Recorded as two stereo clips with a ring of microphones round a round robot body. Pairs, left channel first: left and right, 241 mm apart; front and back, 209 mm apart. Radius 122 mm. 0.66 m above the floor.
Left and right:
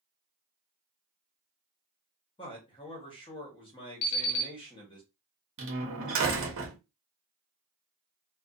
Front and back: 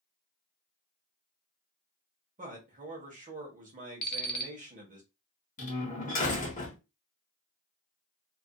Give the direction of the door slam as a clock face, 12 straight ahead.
2 o'clock.